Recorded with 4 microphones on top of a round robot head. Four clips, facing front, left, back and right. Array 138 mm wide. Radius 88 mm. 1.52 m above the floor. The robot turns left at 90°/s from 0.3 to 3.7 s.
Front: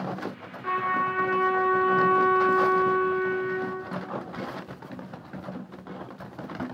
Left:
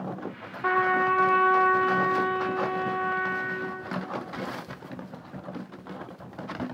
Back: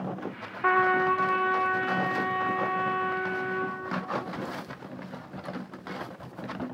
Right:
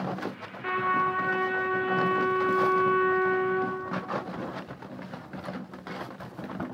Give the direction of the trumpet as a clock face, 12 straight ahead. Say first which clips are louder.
Left 3 dB, back 3 dB; 7 o'clock.